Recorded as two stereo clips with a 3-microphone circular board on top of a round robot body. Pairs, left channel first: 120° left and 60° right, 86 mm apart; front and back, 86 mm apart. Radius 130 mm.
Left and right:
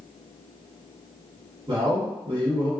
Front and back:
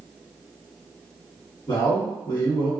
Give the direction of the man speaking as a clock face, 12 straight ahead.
1 o'clock.